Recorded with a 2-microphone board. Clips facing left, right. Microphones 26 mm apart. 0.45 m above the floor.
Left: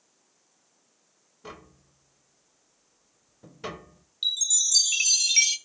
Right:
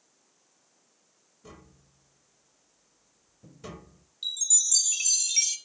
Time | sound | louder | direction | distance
1.4 | tapping | left 6 dB | 45° left (ahead or behind) | 1.1 m
4.2 | a chime | left 5 dB | 35° left (ahead or behind) | 1.0 m